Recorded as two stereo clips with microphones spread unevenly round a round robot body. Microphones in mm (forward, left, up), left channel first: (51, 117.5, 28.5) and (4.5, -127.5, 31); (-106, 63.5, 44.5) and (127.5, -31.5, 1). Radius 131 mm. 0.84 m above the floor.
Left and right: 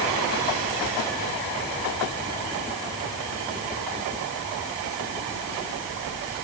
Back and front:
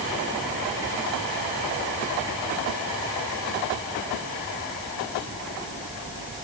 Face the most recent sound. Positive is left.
No sound to turn to.